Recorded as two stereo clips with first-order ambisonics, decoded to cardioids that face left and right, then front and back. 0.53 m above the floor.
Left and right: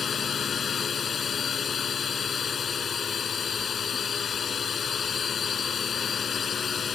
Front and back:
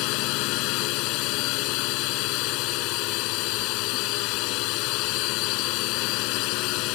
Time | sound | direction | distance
0.0 | a drone | 25° left | ?